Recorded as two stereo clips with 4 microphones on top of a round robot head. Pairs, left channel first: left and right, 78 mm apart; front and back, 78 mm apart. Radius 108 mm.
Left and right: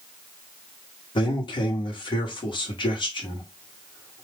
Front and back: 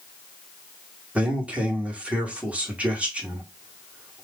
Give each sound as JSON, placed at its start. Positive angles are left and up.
{"t": 1.1, "sound": "a man speaking", "azimuth_deg": 105, "distance_m": 1.2}